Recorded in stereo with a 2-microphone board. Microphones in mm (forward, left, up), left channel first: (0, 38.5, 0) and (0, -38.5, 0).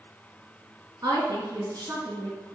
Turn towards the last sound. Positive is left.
turn(degrees=-50)  # may be behind; listen again after turning